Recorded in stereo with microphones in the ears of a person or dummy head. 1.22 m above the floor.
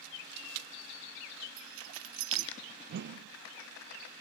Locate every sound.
1.6 s keys jangling: 75° right (ahead or behind), 1.9 m
2.9 s a whoosh: 55° right (ahead or behind), 0.7 m